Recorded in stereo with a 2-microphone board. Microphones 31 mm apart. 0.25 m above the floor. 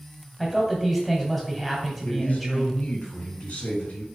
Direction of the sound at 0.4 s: Centre (ahead or behind).